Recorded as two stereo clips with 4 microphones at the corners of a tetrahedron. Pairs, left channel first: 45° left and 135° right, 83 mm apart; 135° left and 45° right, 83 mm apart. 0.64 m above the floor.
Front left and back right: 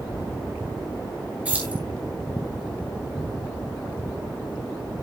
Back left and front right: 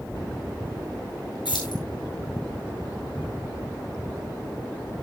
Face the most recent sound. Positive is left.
turn(degrees=155)